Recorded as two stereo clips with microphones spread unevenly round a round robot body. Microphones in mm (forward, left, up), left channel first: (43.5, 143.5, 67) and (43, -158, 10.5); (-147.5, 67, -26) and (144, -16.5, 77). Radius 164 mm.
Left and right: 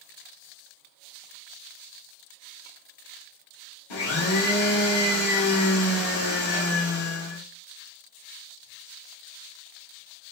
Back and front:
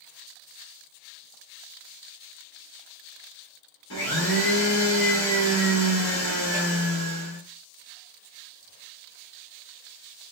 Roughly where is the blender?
Behind left.